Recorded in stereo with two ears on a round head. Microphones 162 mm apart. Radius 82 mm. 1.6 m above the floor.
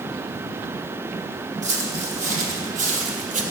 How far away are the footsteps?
About 3.5 m.